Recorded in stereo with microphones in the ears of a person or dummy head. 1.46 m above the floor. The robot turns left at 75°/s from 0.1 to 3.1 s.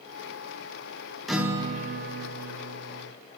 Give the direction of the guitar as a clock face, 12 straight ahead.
12 o'clock.